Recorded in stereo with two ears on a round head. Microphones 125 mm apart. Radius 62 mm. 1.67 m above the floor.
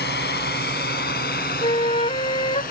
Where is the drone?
80° left; by 2.7 s 65° left (ahead or behind).